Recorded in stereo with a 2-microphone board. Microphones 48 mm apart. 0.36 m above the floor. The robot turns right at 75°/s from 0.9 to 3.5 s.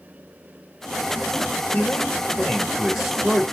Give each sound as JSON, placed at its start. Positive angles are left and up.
{"t": 1.7, "sound": "a man speaking", "azimuth_deg": 90, "distance_m": 1.7}